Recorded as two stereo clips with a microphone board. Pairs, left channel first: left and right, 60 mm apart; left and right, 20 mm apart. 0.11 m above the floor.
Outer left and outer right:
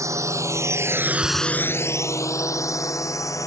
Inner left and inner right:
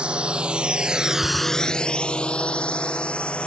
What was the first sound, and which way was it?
A drone, 60° right (ahead or behind).